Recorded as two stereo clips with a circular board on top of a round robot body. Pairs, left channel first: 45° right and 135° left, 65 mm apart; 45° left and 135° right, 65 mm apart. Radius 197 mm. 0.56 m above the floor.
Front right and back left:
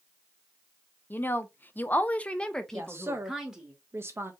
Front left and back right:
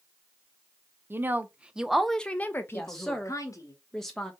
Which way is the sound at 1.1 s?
95° right.